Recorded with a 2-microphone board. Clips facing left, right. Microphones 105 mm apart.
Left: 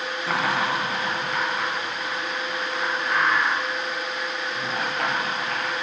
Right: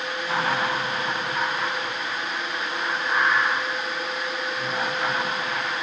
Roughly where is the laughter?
Left.